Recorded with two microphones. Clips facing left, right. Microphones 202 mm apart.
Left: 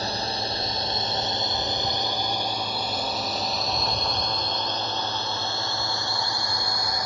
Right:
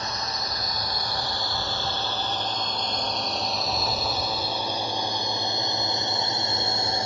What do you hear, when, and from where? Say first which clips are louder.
0.0 s a drone: left 4 dB; 35° left (ahead or behind); by 7.1 s 30° right (ahead or behind)